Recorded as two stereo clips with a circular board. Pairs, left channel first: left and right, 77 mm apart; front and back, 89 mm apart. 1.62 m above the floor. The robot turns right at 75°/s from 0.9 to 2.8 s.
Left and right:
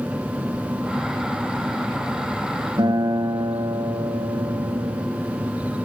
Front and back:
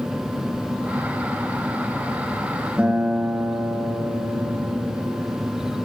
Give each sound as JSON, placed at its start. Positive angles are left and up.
{"t": 2.8, "sound": "a guitar", "azimuth_deg": -105, "distance_m": 3.5}